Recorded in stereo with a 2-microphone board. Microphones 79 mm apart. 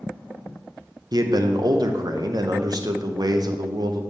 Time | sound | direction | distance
1.1 | a man speaking | 55° right (ahead or behind) | 0.7 m